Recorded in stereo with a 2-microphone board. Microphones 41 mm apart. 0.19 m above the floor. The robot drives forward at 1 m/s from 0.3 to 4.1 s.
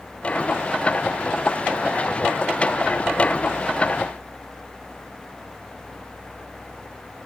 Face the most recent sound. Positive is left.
No sound to turn to.